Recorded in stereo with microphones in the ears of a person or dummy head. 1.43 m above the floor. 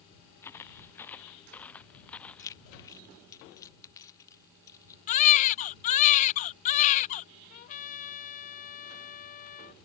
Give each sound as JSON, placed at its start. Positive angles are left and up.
{"t": 0.4, "sound": "footsteps", "side_deg": 10}
{"t": 2.4, "sound": "keys jangling", "side_deg": 15}
{"t": 5.1, "sound": "a baby crying", "side_deg": 40}
{"t": 7.5, "sound": "a trumpet", "side_deg": 45}